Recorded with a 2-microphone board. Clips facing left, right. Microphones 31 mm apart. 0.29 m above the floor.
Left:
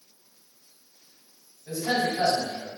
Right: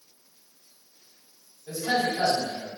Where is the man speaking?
20° left (ahead or behind), 1.7 m.